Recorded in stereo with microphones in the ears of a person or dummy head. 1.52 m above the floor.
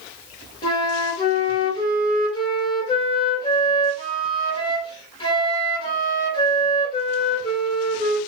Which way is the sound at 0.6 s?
25° left (ahead or behind).